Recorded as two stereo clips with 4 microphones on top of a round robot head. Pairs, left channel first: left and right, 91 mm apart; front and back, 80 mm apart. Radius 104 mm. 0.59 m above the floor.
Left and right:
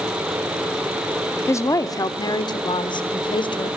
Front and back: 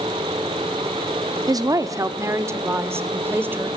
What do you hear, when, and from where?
1.5 s a woman speaking: 145° left, 1.2 m; by 3.7 s 115° left, 2.5 m